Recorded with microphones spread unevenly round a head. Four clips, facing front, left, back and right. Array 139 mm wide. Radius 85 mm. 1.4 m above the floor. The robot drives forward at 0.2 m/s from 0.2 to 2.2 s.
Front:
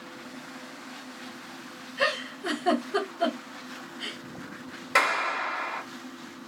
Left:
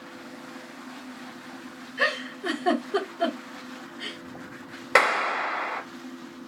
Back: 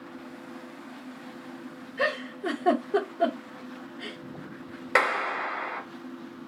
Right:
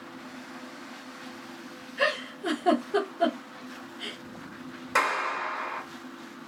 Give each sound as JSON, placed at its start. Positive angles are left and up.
{"t": 2.0, "sound": "a giggle", "azimuth_deg": 170, "distance_m": 1.5}
{"t": 5.0, "sound": "a clap", "azimuth_deg": 100, "distance_m": 0.7}